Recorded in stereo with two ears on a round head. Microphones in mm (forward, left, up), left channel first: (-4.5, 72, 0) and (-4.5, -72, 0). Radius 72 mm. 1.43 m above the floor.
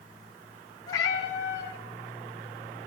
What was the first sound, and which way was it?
A cat meowing, 20° left (ahead or behind).